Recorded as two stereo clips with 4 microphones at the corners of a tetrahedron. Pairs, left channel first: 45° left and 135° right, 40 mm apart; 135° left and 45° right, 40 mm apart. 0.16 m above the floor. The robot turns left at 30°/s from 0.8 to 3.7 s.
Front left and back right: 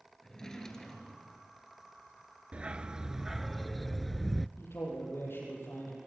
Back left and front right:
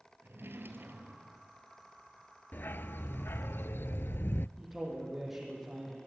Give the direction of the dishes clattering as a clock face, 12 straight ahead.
I don't hear dishes clattering.